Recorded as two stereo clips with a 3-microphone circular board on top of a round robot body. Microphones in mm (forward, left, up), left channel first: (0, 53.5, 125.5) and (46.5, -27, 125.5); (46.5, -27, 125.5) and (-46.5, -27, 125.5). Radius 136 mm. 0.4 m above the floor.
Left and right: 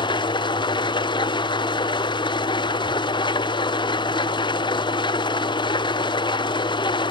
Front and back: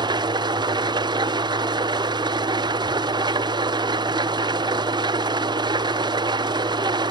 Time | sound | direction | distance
0.0 | an engine running | 145° left | 1.0 m